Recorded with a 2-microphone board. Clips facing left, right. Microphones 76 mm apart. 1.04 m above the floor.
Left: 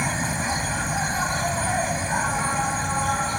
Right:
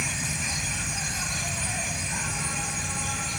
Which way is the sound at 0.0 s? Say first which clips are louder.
Left 7 dB; 45° left (ahead or behind).